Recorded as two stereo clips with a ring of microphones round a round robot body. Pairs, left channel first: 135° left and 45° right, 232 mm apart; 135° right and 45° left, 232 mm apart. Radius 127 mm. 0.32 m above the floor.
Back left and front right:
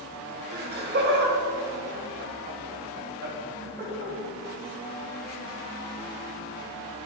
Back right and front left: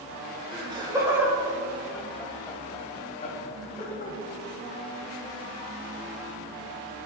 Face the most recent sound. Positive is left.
turn(degrees=-90)